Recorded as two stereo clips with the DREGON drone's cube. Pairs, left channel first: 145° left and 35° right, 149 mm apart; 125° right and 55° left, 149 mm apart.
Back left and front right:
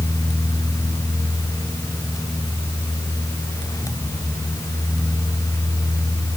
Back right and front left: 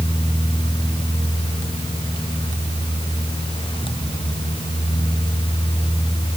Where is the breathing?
I don't hear breathing.